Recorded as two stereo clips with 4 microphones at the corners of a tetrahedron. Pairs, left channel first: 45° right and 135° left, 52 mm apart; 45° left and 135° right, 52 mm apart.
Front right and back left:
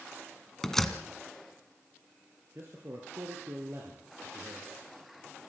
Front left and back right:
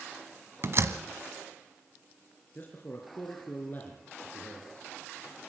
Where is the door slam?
125° right, 1.3 m.